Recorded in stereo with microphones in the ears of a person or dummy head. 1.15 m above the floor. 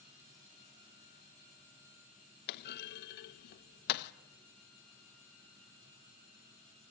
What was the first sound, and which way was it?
A clunk, 50° left (ahead or behind).